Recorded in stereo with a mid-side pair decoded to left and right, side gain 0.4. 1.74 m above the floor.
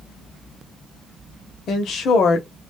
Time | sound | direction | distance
1.7 | a woman speaking | 70° left | 1.0 m